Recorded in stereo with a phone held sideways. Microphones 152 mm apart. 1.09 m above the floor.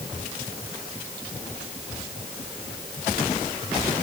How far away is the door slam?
No door slam in this recording.